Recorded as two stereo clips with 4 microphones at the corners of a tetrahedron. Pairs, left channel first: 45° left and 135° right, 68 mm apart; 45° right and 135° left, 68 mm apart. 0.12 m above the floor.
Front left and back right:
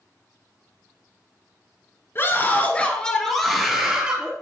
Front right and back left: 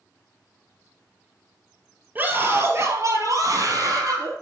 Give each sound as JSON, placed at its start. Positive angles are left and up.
{"t": 2.1, "sound": "a scream", "azimuth_deg": 85, "distance_m": 1.9}